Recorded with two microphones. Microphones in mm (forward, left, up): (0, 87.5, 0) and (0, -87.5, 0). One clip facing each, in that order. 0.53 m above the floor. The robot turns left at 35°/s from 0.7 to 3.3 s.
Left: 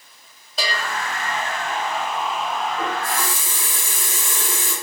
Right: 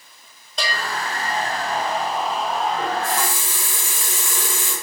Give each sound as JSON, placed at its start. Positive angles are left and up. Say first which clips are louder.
{"t": 0.6, "sound": "a bell", "louder": "left 1 dB", "side_deg": 5, "distance_m": 1.0}
{"t": 2.8, "sound": "a running tap", "louder": "right 2 dB", "side_deg": -30, "distance_m": 1.5}